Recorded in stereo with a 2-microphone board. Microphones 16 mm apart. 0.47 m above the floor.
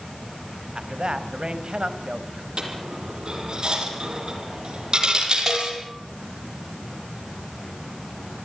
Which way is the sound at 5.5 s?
5° right (ahead or behind).